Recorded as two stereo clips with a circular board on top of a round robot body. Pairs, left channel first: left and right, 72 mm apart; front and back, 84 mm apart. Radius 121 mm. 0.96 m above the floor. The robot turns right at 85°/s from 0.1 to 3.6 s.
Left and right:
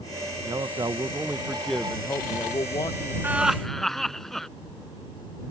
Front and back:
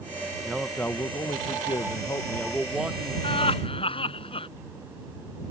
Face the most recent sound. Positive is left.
turn(degrees=5)